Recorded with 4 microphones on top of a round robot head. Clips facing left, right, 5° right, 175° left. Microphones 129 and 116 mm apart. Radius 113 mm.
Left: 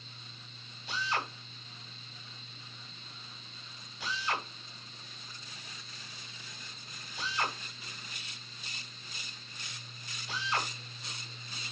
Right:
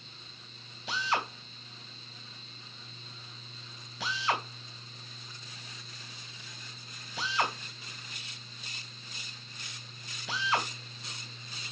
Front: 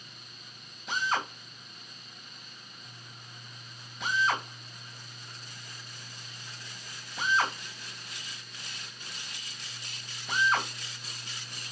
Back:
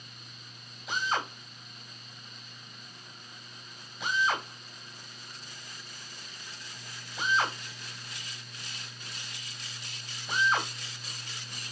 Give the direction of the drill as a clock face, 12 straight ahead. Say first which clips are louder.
Right 3 dB, front 1 dB; 3 o'clock.